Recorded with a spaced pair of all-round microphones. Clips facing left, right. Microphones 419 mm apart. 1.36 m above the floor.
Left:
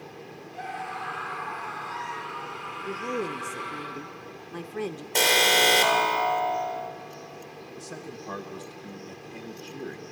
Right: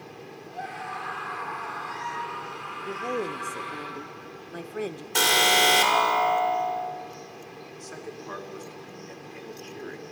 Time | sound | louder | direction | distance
0.5 | a scream | left 1 dB | 60° right (ahead or behind) | 9.5 m
2.9 | a woman speaking | even | 10° left (ahead or behind) | 0.7 m
5.2 | an alarm | left 1 dB | 25° right (ahead or behind) | 3 m
7.8 | a man speaking | even | 55° left (ahead or behind) | 1.5 m